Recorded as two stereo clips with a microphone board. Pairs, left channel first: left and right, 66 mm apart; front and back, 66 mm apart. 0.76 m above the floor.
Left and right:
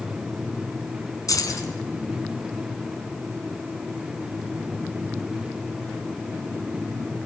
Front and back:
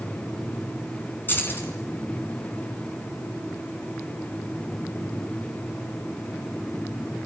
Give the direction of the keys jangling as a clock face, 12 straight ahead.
10 o'clock.